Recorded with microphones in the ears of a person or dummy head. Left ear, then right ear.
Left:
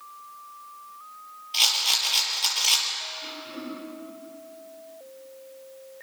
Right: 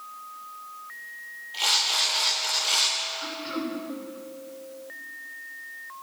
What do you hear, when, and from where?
1.5 s a rattle: 55° left (ahead or behind), 6 m
3.2 s throat clearing: 50° right (ahead or behind), 5 m